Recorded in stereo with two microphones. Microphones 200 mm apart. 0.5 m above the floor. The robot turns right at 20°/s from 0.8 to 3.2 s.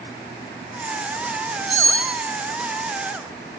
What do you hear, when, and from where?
1.7 s cutlery clinking: 85° right, 4.5 m; by 2.1 s 80° right, 4.5 m